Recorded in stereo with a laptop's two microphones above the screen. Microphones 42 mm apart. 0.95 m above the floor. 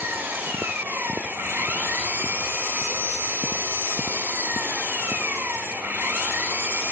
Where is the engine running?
60° right (ahead or behind), 6 m.